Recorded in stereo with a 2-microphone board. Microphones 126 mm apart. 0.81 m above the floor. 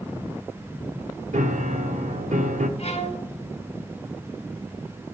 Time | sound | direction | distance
1.3 | a piano | 75° right (ahead or behind) | 1.0 m
2.8 | a violin | 55° left (ahead or behind) | 3 m